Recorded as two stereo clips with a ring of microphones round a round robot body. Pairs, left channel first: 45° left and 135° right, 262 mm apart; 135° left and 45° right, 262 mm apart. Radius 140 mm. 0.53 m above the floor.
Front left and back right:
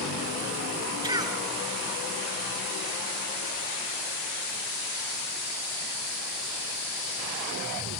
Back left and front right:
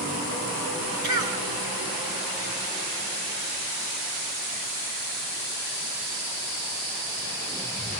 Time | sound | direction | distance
1.0 | a cough | 60° right | 9 m